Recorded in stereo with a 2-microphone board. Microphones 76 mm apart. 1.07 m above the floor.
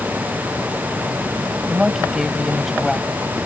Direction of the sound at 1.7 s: 10° right (ahead or behind).